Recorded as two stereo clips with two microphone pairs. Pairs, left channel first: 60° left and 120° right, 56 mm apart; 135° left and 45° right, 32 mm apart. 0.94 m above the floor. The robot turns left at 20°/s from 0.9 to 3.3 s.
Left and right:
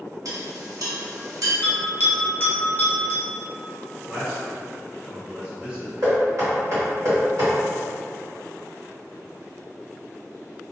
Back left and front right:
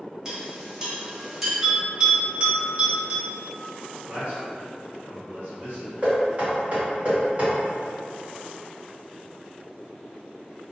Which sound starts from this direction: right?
Knocking, at 6.0 s.